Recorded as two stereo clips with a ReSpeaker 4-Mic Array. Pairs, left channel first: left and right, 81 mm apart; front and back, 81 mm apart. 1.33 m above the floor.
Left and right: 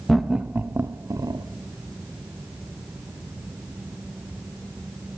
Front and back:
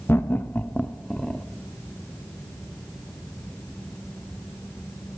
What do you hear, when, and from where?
0.1 s laughter: 5° left, 0.5 m; by 1.4 s 80° right, 0.8 m